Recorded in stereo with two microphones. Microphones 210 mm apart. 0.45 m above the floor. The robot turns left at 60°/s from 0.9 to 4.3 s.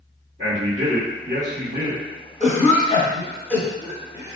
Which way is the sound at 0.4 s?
60° right.